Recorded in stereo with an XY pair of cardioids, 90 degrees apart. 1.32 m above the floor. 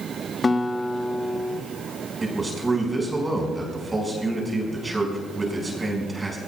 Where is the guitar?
30° left, 1.0 m.